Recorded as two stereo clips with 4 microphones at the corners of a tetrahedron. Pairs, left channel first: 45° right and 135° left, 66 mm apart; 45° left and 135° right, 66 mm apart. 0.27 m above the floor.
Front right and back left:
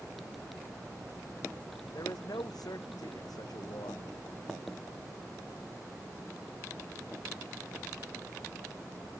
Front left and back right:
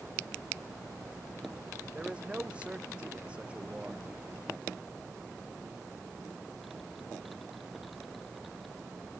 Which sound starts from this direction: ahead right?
A man speaking, at 1.9 s.